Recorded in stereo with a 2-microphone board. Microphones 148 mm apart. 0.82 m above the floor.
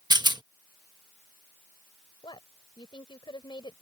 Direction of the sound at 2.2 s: 30° left (ahead or behind).